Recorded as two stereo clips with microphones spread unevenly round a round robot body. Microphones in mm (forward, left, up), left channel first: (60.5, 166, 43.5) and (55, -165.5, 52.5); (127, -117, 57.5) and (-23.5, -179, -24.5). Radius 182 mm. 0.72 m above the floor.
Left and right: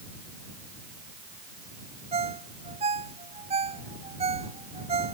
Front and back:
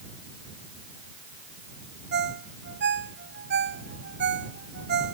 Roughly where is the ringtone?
Behind.